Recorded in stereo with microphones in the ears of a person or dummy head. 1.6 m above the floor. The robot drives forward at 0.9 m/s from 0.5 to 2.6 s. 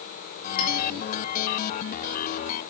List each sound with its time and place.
0.6 s a clink: 50° left (ahead or behind), 3 m; by 0.7 s 55° left (ahead or behind), 3 m